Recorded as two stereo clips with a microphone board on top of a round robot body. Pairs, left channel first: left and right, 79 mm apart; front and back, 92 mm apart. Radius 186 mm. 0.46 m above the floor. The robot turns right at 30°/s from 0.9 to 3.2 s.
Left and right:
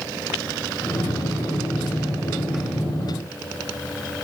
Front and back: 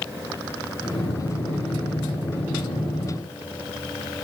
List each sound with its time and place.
Only background noise.